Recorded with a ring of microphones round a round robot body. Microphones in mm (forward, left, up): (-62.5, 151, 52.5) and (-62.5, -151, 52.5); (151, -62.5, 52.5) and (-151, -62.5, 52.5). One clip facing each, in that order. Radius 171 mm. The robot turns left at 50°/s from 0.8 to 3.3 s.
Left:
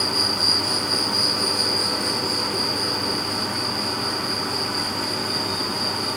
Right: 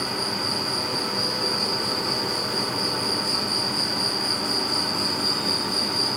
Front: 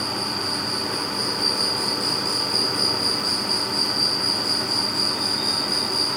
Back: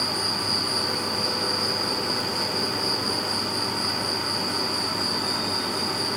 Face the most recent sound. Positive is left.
turn(degrees=-30)